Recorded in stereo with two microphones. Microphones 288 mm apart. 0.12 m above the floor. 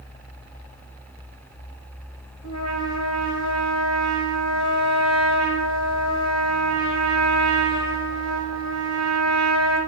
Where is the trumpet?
60° left (ahead or behind), 5.5 m.